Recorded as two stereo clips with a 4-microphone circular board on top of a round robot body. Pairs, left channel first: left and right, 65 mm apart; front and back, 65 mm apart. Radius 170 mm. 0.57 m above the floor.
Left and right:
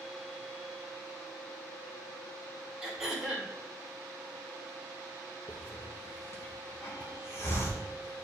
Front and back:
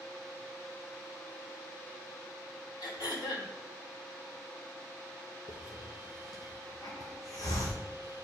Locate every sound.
2.8 s throat clearing: 5° right, 2.0 m
5.5 s a hiss: 35° left, 0.7 m